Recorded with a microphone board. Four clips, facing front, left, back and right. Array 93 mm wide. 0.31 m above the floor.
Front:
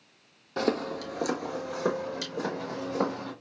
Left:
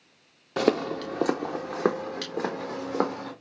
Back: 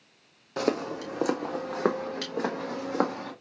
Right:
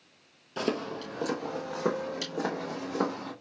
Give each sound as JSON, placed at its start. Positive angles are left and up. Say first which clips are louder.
{"t": 0.6, "sound": "footsteps", "louder": "left 7 dB, even", "azimuth_deg": 95, "distance_m": 0.6}